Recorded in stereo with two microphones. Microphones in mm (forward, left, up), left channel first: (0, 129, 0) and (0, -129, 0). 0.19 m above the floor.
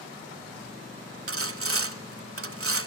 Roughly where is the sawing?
Right.